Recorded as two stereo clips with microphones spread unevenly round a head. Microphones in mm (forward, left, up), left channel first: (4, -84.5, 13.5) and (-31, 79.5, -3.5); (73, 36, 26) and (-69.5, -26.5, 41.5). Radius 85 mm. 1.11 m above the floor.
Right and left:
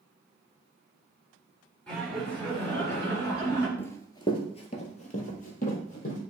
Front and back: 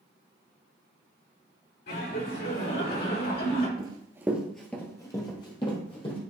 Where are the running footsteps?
140° right, 1.2 m; by 6.2 s 35° right, 3 m.